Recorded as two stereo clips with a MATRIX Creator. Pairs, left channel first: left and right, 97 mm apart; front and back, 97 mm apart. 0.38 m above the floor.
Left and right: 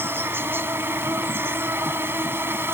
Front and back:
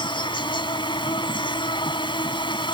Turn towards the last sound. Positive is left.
turn(degrees=-25)